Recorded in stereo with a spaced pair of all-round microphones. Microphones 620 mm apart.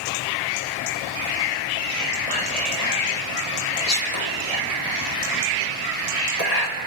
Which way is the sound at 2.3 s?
80° left.